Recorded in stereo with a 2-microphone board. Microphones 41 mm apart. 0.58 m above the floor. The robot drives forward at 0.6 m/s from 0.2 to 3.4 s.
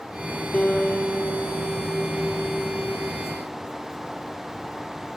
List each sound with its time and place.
0.5 s a guitar: 40° left (ahead or behind), 1.1 m; by 3.1 s 30° left (ahead or behind), 1.4 m